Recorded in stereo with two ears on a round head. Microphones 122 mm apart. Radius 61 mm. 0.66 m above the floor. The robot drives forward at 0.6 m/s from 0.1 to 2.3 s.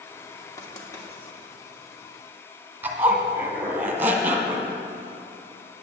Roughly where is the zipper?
Centre.